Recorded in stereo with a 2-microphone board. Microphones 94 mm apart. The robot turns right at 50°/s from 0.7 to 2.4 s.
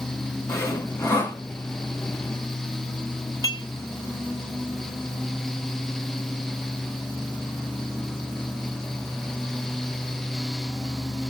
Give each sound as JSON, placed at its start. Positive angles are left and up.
{"t": 0.5, "sound": "sawing", "azimuth_deg": 100, "distance_m": 1.1}
{"t": 3.4, "sound": "dishes clattering", "side_deg": 40, "distance_m": 1.2}